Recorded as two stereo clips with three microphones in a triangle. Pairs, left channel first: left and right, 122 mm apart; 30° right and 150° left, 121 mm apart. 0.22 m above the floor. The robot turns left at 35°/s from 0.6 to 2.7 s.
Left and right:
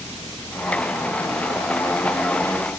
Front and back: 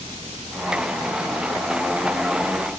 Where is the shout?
No shout in this recording.